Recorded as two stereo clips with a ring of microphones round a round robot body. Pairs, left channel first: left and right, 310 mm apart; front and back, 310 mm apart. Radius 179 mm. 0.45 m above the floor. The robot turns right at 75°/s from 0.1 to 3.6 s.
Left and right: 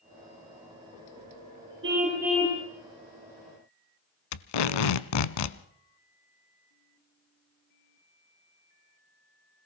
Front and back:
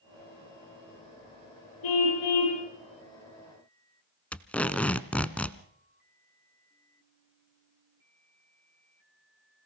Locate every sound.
1.8 s a car horn: 35° right, 7 m; by 2.6 s 25° left, 7 m
4.3 s tape being pulled: 85° left, 1.0 m